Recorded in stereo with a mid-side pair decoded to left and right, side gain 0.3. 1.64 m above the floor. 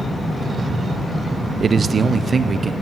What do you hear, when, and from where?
1.6 s a man speaking: 55° right, 0.6 m; by 2.7 s 50° right, 1.5 m